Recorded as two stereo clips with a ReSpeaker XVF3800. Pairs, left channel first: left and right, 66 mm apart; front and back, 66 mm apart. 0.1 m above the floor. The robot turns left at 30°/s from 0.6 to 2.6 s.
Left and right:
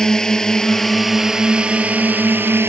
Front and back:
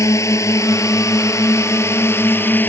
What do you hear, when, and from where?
0.0 s a drone: 10° left; by 2.7 s 50° right